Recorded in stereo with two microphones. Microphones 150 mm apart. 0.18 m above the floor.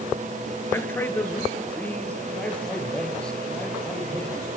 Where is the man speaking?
15° left (ahead or behind), 3.5 m; by 4.5 s 5° left (ahead or behind), 9 m.